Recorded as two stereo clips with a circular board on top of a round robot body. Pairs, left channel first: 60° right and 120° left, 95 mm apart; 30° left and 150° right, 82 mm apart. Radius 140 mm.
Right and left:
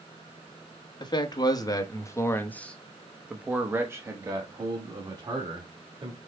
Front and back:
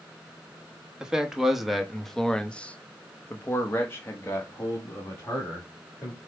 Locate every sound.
1.0 s a man speaking: 70° right, 1.3 m; by 6.2 s 90° left, 2 m